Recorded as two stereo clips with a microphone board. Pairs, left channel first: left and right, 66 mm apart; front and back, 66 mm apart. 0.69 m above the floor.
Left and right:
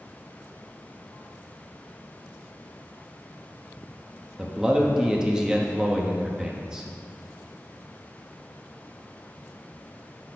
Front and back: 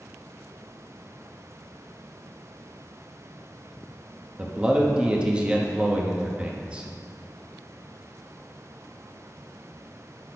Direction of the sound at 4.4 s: 150° right.